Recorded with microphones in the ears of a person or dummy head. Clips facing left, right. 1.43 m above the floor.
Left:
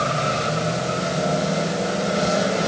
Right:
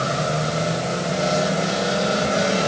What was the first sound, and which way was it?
Only background noise.